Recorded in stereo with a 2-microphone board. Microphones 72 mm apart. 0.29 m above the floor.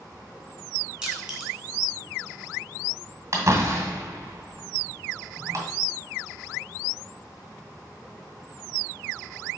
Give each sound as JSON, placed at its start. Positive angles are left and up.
{"t": 1.0, "sound": "crushing", "side_deg": -10, "distance_m": 2.5}
{"t": 3.3, "sound": "a door slam", "side_deg": -45, "distance_m": 1.9}